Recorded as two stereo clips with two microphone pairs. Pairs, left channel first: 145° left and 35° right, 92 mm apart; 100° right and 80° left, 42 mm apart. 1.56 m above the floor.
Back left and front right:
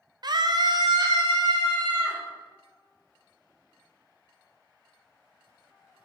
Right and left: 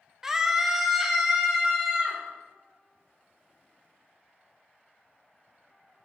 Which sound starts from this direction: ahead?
A scream, at 0.2 s.